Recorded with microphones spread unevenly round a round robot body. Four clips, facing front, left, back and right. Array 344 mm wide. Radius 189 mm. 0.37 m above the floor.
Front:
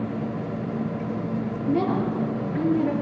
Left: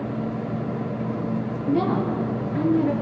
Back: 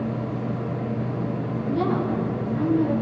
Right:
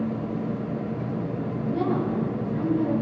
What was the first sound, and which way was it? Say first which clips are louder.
A woman speaking: left 3 dB, even; 50° left.